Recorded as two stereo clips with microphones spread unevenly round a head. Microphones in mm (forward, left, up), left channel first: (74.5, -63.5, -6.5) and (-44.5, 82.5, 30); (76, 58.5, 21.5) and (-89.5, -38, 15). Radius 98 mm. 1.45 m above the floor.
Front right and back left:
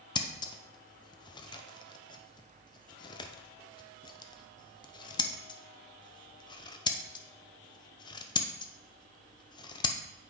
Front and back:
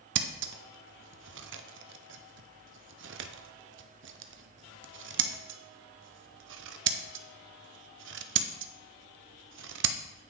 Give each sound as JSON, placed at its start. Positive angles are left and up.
{"t": 0.1, "sound": "scissors", "azimuth_deg": -120, "distance_m": 0.6}